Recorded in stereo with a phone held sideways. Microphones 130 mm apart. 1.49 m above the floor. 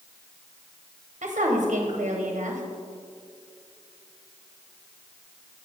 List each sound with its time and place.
1.2 s a woman speaking: 70° right (ahead or behind), 1.4 m